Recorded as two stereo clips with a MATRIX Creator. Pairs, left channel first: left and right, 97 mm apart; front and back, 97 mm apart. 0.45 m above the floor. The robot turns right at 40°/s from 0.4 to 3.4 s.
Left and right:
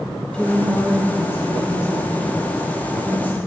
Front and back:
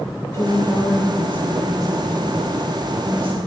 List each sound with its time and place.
0.3 s a woman speaking: 20° left, 0.8 m; by 3.4 s 140° left, 0.8 m